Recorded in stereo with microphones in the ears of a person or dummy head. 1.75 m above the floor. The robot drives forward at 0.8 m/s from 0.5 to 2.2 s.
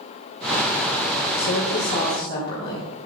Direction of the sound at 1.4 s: 75° left (ahead or behind).